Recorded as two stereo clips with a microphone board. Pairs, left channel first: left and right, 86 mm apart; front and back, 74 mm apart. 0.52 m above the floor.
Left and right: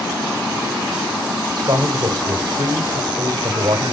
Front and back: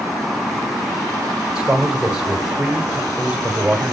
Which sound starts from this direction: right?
A man speaking, at 1.6 s.